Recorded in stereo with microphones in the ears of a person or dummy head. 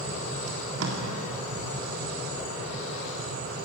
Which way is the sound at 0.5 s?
80° right.